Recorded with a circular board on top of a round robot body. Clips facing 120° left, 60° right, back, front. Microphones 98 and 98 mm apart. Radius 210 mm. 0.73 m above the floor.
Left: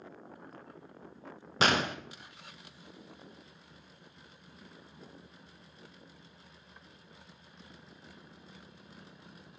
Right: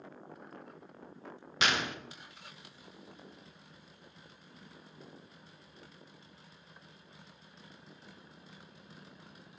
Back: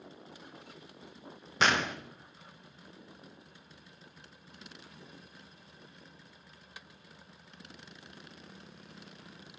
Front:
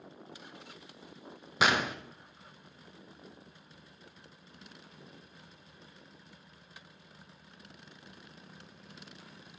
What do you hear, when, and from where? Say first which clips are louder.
1.6 s a gunshot: left 4 dB, even; 80° left, 0.9 m